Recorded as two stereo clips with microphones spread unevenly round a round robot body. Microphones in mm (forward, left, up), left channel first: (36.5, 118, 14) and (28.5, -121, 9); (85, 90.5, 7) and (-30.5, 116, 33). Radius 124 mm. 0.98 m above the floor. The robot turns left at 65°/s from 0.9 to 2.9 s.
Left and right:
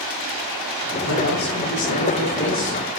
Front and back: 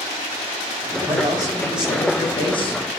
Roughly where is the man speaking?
Behind left.